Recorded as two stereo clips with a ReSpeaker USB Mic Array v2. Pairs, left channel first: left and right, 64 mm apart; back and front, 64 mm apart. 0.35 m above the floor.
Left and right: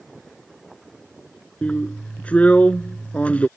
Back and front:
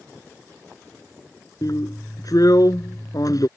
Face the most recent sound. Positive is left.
turn(degrees=160)